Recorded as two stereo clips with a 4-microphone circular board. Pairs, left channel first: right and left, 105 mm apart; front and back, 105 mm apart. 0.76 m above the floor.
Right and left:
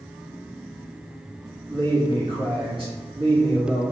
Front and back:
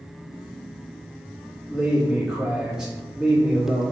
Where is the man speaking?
100° left, 1.6 m.